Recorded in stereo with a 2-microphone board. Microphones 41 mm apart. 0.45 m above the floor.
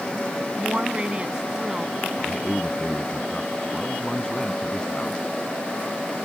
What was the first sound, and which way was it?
A woman speaking, 35° right (ahead or behind).